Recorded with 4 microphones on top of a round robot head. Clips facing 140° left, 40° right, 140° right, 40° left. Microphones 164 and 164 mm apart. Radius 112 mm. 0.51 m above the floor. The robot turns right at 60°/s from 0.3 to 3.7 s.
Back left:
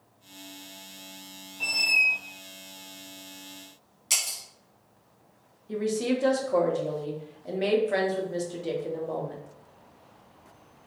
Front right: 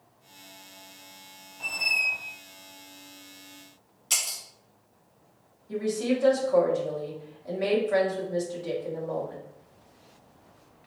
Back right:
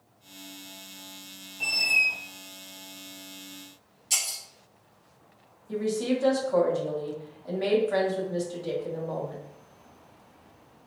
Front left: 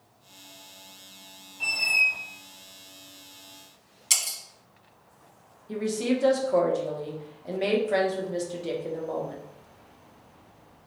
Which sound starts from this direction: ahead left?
Breaking glass, at 4.1 s.